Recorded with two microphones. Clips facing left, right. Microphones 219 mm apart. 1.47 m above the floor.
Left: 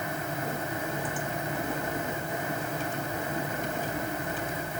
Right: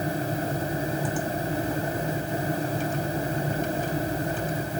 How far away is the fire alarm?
I don't hear a fire alarm.